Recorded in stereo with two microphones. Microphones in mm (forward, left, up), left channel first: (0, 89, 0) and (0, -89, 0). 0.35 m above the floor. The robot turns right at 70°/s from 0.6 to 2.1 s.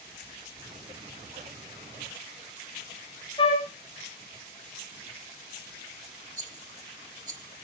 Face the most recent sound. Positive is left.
turn(degrees=-20)  # may be behind; listen again after turning